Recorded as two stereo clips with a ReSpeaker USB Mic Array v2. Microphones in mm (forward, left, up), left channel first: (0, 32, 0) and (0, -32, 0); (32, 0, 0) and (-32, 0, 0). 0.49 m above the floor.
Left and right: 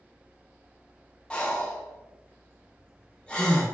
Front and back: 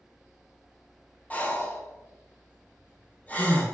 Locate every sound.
1.3 s breathing: 30° left, 0.7 m